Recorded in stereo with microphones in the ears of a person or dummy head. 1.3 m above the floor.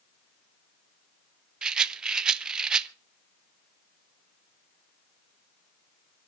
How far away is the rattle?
About 0.7 m.